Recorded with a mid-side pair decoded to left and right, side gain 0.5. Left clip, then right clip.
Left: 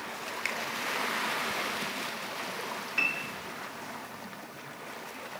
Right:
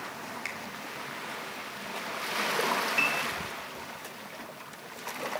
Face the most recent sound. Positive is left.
turn(degrees=5)